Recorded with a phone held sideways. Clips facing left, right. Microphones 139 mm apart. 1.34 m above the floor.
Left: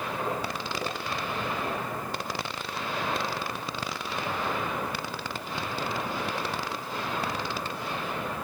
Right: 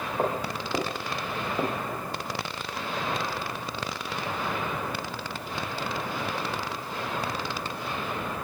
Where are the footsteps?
45° right (ahead or behind), 9 m; by 2.0 s 55° right (ahead or behind), 8.5 m.